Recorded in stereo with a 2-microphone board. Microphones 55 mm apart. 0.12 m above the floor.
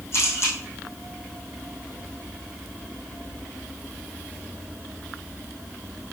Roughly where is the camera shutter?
Left.